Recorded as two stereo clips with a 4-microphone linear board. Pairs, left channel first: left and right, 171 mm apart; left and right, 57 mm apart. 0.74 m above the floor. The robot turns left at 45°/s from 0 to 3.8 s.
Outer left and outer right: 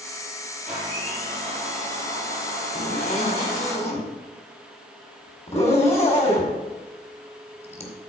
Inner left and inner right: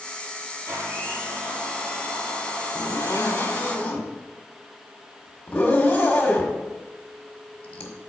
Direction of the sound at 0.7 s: 135° right.